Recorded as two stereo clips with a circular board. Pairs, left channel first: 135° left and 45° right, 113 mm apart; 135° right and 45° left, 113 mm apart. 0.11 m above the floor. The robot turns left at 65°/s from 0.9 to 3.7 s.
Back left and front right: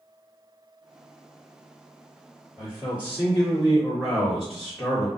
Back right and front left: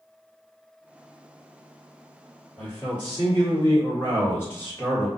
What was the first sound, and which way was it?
A man speaking, 70° right.